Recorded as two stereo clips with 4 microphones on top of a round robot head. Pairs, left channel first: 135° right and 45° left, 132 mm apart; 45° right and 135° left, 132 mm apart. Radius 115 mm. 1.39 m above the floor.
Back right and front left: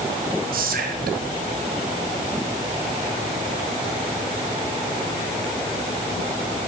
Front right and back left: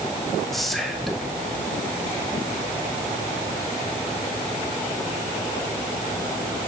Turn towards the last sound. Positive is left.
turn(degrees=45)